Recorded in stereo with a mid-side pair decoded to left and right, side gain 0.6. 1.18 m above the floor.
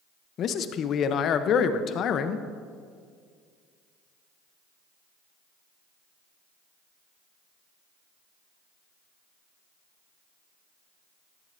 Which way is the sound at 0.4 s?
50° left.